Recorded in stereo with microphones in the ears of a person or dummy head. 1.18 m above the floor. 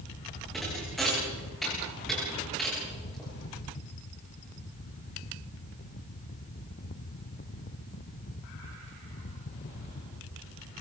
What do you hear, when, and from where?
0.5 s a thud: centre (ahead or behind), 9.5 m